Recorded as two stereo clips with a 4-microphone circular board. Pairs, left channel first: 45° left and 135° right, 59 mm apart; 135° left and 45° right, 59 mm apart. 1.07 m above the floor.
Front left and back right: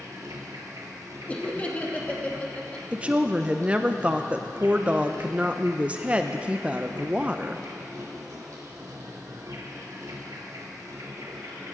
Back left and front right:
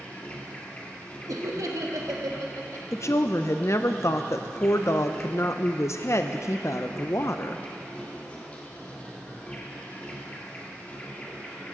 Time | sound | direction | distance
0.0 | an insect | 160° right | 1.9 m
1.3 | laughter | 25° right | 1.4 m
2.9 | a woman speaking | 160° left | 0.5 m